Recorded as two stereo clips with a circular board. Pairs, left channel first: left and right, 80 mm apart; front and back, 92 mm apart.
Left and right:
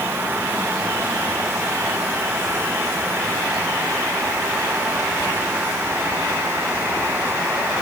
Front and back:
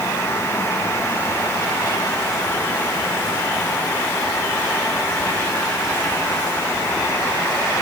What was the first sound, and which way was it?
Only background noise.